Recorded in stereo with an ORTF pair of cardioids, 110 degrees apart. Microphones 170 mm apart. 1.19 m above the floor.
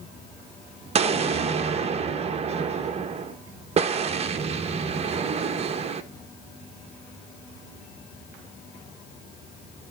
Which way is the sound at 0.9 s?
35° right.